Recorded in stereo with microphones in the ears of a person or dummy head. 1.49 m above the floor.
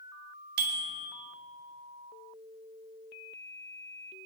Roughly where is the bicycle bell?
Right.